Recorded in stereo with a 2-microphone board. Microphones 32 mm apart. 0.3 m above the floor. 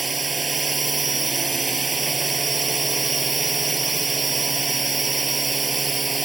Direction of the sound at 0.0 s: Centre (ahead or behind).